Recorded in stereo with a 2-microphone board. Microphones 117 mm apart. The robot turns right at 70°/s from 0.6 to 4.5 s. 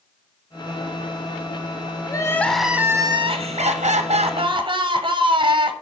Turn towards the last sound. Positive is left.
turn(degrees=-45)